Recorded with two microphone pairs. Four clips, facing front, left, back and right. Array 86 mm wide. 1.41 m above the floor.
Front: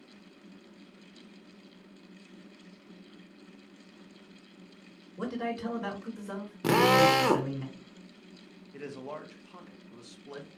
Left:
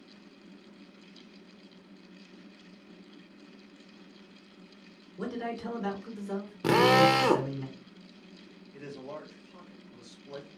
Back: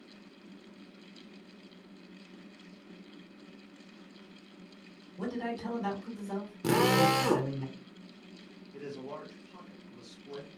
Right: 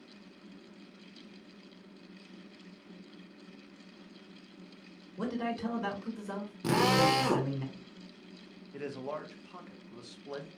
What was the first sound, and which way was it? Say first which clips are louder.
A man speaking: right 1 dB, front 2 dB; 45° right.